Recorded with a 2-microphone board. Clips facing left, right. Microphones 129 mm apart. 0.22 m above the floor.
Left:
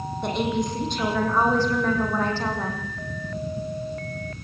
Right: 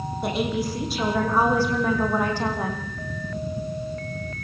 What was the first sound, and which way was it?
A woman speaking, 5° right (ahead or behind).